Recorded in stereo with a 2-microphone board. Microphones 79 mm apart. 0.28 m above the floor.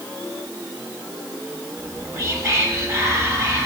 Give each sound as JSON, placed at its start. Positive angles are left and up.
{"t": 1.8, "sound": "whispering", "side_deg": -35, "distance_m": 1.1}